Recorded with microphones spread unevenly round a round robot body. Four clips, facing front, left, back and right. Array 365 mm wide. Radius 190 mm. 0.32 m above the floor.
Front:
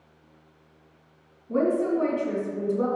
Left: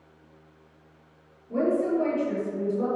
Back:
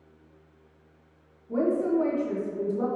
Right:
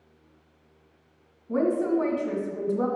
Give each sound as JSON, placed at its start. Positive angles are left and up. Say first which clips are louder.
{"t": 1.5, "sound": "a woman speaking", "louder": "even, front 1 dB", "azimuth_deg": -90, "distance_m": 1.7}